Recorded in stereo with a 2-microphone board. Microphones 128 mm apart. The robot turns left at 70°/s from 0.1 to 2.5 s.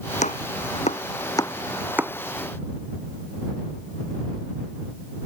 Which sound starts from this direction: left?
Chopping, at 0.2 s.